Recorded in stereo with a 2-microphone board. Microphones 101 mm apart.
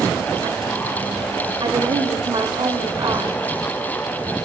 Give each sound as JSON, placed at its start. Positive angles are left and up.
{"t": 1.6, "sound": "a woman speaking", "side_deg": -50, "distance_m": 1.7}